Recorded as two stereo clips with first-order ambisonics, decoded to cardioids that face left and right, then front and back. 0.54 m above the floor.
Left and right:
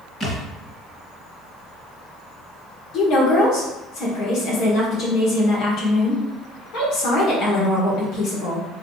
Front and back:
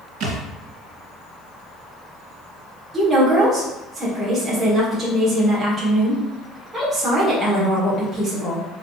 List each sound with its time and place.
0.2 s a thud: 155° left, 1.9 m
2.9 s a woman speaking: 100° left, 1.3 m